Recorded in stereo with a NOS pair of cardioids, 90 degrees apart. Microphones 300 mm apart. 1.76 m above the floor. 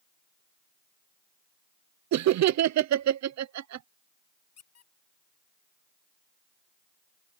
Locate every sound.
2.1 s laughter: 65° right
4.6 s a squeak: 55° left